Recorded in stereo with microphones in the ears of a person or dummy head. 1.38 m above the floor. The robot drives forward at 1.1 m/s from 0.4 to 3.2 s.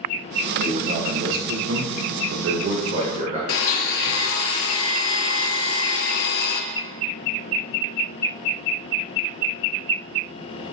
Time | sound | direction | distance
0.6 | a man speaking | 35° right (ahead or behind) | 1.9 m
3.5 | a blender | 75° left (ahead or behind) | 1.1 m